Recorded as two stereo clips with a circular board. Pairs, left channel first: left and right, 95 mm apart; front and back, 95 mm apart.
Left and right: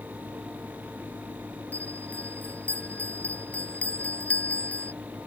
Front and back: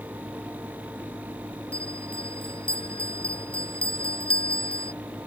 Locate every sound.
1.7 s a bell: 15° left